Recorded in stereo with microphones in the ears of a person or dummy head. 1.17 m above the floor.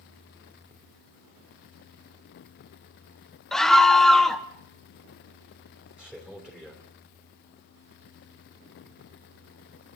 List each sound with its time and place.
3.5 s a scream: centre (ahead or behind), 0.5 m
6.0 s a man speaking: 5° right (ahead or behind), 3 m